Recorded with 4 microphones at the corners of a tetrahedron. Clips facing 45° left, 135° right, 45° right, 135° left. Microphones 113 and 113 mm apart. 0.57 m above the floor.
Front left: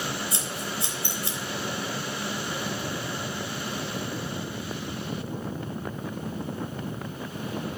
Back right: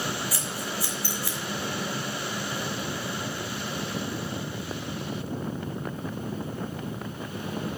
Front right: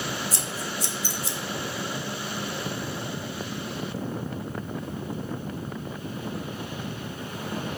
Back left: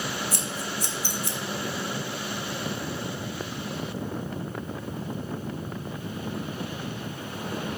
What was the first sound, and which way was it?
Scissors, 110° left.